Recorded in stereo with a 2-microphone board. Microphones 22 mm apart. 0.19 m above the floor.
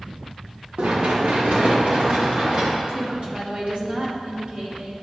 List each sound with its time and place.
0.8 s running footsteps: 80° right, 2.0 m; by 2.8 s 35° right (ahead or behind), 3 m
2.9 s a woman speaking: 55° right (ahead or behind), 2.5 m